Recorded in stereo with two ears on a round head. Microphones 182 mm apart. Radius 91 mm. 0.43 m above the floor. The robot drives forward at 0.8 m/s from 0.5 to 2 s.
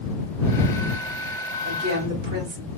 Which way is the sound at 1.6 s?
50° right (ahead or behind).